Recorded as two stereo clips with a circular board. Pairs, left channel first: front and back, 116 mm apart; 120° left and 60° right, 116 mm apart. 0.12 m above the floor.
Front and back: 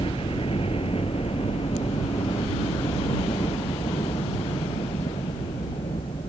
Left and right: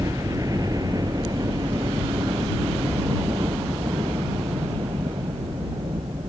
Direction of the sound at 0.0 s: 10° right.